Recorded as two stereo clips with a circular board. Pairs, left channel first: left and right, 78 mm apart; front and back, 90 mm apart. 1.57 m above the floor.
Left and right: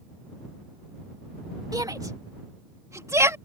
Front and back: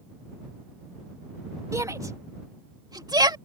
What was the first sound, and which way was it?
A shout, 125° right.